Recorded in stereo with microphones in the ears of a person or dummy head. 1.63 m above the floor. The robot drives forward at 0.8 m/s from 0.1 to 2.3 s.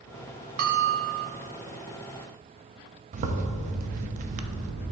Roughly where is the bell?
Right.